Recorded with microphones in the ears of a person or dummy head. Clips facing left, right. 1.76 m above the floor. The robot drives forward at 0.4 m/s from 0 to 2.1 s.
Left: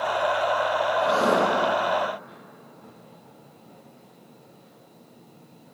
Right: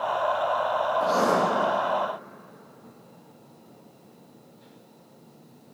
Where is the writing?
45° right (ahead or behind), 3.5 m.